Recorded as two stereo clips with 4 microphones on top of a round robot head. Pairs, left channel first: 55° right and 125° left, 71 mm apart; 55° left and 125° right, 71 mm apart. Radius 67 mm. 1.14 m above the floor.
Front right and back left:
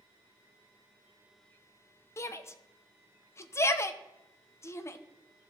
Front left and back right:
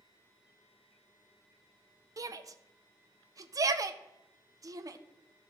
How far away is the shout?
About 0.8 m.